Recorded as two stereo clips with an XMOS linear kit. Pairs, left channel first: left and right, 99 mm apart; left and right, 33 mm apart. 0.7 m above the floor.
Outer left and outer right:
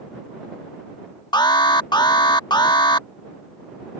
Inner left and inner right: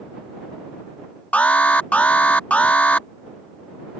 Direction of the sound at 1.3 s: 45° left (ahead or behind).